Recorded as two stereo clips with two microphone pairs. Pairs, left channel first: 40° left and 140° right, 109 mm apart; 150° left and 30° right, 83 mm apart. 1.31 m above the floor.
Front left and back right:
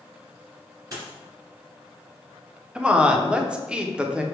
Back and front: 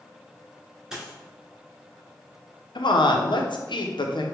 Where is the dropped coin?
105° right, 1.7 m.